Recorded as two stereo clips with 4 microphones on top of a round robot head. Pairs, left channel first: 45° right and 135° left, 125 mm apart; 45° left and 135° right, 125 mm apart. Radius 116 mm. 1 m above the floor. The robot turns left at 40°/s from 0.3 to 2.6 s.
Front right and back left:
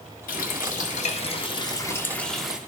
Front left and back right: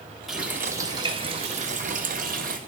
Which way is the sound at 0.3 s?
50° right.